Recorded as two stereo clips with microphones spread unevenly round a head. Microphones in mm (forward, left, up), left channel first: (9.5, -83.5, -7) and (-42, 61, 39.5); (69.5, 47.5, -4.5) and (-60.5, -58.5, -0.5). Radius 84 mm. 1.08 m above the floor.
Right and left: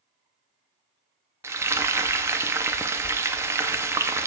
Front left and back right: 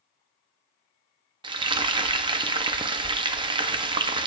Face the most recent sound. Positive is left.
turn(degrees=165)